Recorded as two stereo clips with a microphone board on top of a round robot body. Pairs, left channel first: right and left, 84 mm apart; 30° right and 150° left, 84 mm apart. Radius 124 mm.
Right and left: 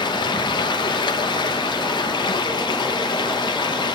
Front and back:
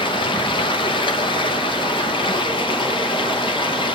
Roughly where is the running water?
Ahead right.